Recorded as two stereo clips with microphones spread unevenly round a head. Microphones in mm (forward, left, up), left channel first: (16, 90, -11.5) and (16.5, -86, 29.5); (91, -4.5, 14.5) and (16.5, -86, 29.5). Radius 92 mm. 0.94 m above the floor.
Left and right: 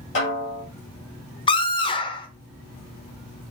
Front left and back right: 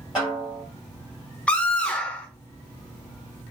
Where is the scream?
115° left, 0.8 m.